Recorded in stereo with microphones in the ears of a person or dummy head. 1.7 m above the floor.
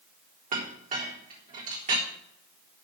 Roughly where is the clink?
Right.